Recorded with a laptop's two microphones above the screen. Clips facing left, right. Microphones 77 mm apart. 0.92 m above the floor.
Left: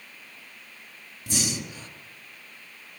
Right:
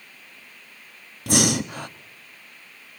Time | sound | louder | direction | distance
1.3 | breathing | right 10 dB | 65° right (ahead or behind) | 0.8 m